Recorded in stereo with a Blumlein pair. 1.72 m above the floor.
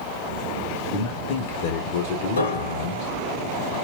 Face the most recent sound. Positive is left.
turn(degrees=65)